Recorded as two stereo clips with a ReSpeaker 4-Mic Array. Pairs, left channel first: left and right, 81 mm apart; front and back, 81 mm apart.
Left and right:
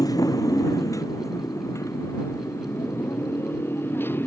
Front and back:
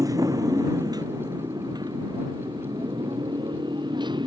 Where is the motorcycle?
135° left; by 4.3 s 155° left.